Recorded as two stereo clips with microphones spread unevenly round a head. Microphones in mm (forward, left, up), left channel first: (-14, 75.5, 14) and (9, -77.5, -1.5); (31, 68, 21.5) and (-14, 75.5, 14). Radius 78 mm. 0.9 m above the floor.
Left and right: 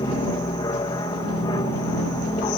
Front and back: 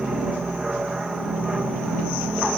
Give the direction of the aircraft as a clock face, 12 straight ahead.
8 o'clock.